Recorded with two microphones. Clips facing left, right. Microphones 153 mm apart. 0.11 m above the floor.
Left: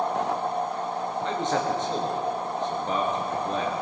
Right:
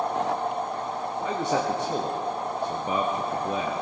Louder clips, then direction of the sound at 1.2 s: Right 1 dB; 10° right (ahead or behind).